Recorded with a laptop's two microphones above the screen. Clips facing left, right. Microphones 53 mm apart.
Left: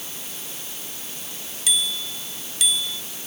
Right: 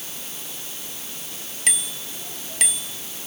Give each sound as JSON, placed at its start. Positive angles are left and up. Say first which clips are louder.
{"t": 1.7, "sound": "a bicycle bell", "louder": "left 4 dB", "side_deg": -55}